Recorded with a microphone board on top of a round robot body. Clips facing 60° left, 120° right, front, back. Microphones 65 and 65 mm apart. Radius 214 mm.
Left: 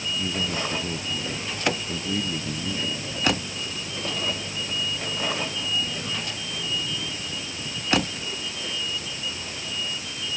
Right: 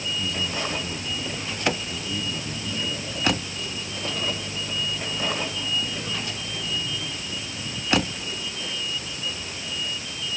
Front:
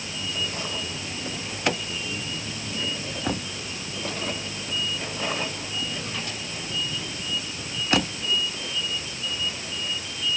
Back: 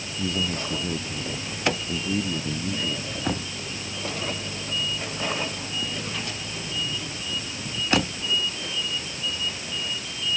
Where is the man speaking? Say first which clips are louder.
Left 2 dB, back 5 dB; 130° left; by 3.4 s 125° left.